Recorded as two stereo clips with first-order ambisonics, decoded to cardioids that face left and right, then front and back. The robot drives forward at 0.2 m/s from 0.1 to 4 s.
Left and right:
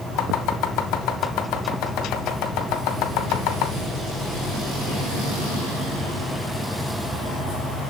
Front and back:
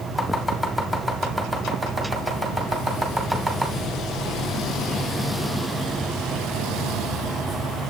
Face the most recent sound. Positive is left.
turn(degrees=115)